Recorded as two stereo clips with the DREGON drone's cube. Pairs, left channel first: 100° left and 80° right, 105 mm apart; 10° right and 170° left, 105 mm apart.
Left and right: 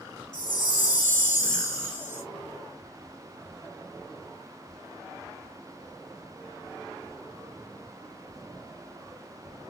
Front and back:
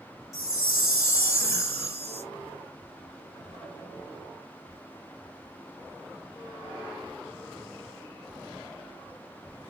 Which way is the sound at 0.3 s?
20° left.